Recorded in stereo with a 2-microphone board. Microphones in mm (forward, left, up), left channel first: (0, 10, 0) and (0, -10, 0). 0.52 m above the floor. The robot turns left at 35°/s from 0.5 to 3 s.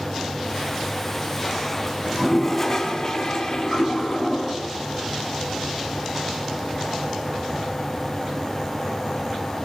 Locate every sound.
2.0 s a toilet flushing: straight behind, 4.5 m; by 4.5 s 145° left, 4.5 m